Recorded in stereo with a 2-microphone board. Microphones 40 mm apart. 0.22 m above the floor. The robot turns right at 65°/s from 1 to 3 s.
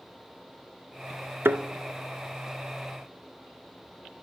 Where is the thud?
75° right (ahead or behind), 0.6 m; by 1.6 s 80° right, 0.6 m.